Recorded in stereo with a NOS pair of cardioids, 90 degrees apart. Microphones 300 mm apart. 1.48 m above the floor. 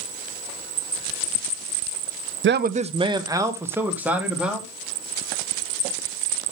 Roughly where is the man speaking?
Ahead right.